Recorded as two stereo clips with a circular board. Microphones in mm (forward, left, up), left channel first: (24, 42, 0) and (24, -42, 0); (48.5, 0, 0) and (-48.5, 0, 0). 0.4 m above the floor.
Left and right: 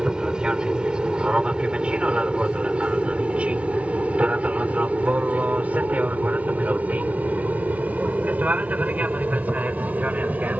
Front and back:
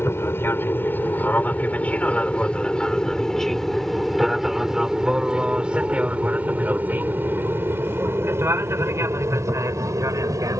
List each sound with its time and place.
0.0 s an aircraft: 20° right; by 10.6 s 155° right